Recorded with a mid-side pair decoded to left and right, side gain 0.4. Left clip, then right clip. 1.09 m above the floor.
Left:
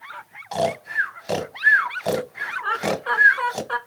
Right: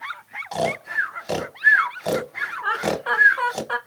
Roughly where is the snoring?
Ahead.